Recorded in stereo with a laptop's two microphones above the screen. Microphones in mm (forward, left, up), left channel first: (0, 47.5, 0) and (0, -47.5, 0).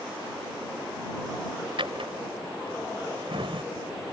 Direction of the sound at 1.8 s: 70° right (ahead or behind).